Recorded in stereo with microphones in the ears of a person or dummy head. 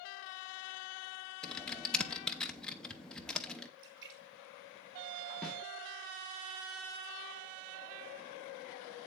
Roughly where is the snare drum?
Centre.